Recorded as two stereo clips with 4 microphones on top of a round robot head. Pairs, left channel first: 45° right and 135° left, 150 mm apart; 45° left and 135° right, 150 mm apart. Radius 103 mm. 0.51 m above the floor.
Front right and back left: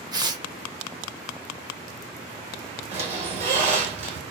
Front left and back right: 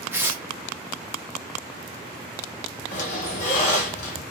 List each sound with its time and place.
0.1 s tearing paper: 165° left, 0.9 m
2.9 s a squeak: 85° left, 1.1 m